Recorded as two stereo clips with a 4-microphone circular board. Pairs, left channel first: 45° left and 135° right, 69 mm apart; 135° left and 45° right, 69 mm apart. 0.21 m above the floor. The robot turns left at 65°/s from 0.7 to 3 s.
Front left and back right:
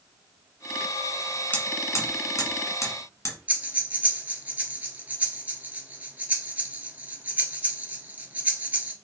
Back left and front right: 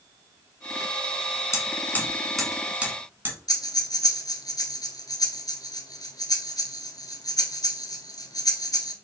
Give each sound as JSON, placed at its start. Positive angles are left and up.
{"t": 1.5, "sound": "hammering", "azimuth_deg": 105, "distance_m": 1.3}
{"t": 3.5, "sound": "breathing", "azimuth_deg": 160, "distance_m": 0.9}